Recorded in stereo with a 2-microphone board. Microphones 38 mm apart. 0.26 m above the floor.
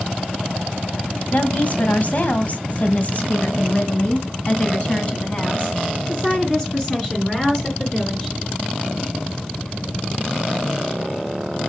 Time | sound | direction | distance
1.3 | a woman speaking | 40° left (ahead or behind) | 1.9 m